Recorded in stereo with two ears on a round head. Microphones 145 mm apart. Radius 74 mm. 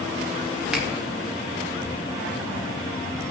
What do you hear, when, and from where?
0.7 s a finger snap: 5° right (ahead or behind), 2 m